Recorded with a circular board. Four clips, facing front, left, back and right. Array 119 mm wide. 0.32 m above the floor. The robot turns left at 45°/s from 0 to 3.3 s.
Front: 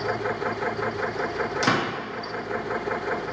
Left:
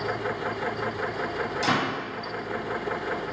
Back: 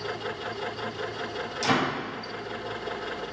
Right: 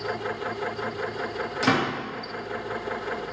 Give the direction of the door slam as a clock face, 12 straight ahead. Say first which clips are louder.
Right 3 dB, even; 1 o'clock.